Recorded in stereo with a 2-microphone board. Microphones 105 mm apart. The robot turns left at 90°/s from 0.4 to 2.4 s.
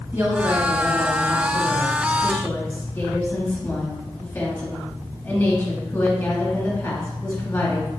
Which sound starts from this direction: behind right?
A woman speaking, at 0.1 s.